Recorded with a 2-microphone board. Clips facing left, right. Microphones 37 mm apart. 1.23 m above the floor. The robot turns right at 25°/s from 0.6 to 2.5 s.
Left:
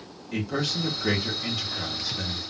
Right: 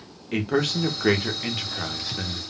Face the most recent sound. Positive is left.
turn(degrees=-45)